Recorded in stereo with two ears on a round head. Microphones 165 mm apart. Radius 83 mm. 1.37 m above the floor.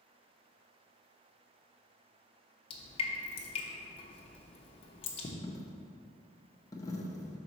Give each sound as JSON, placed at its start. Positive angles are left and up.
{"t": 2.7, "sound": "dripping", "side_deg": 30, "distance_m": 0.9}
{"t": 5.4, "sound": "a dropped coin", "side_deg": 20, "distance_m": 0.8}